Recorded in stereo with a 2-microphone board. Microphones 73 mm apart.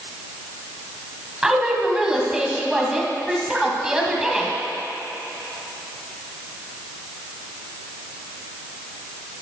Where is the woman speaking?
10° right (ahead or behind), 1.5 m.